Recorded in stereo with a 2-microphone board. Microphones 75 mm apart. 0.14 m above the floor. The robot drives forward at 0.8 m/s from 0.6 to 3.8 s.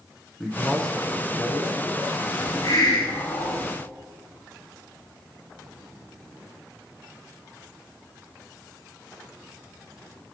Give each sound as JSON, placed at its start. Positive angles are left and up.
{"t": 0.4, "sound": "a man speaking", "side_deg": 10, "distance_m": 1.0}
{"t": 2.4, "sound": "a hiss", "side_deg": 60, "distance_m": 1.3}